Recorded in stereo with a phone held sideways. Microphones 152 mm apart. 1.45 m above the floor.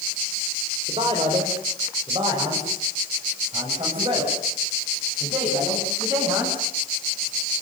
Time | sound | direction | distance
0.9 | a man speaking | 40° right (ahead or behind) | 5 m